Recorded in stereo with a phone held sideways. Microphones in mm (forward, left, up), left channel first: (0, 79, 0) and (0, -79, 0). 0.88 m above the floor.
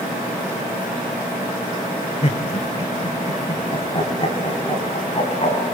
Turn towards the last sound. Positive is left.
turn(degrees=40)  # may be behind; listen again after turning